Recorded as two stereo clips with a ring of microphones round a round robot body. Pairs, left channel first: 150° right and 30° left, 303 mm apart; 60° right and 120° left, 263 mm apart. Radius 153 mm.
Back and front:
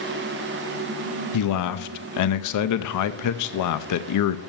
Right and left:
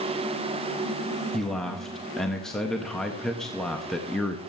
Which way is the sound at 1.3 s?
150° right.